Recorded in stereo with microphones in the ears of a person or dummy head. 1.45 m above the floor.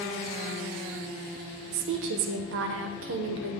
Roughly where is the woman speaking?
Right.